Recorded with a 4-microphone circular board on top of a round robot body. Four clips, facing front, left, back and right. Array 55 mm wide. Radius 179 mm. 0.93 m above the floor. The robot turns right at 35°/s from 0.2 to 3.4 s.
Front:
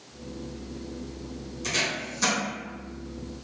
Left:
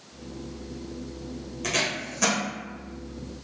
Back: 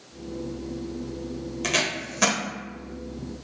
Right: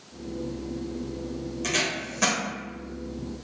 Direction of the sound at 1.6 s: 165° left.